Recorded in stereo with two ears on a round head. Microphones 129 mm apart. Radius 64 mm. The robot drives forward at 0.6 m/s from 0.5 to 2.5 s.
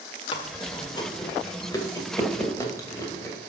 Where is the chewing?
35° left (ahead or behind), 1.6 m; by 3.4 s 20° left (ahead or behind), 2.5 m.